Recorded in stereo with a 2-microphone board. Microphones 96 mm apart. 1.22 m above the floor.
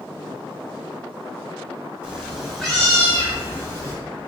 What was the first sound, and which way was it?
A cat meowing, 10° right (ahead or behind).